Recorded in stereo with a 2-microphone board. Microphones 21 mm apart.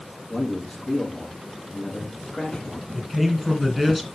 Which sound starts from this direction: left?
A man speaking, at 0.3 s.